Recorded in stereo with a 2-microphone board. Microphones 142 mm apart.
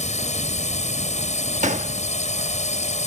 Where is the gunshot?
60° right (ahead or behind).